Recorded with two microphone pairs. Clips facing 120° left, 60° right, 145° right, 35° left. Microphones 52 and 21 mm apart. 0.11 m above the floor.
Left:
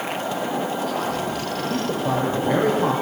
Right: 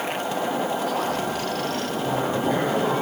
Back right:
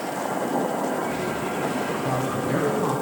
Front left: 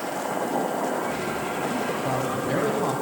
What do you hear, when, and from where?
1.7 s a man speaking: 85° left, 4 m